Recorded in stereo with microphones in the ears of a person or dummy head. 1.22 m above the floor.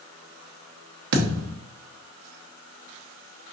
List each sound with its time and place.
1.1 s a thud: 55° right (ahead or behind), 0.8 m